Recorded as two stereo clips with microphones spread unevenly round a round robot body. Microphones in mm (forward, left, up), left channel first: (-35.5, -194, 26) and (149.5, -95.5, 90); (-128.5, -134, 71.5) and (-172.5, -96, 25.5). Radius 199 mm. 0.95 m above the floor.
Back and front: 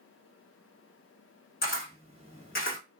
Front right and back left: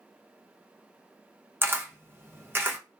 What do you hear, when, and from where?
1.6 s a camera shutter: 165° left, 1.2 m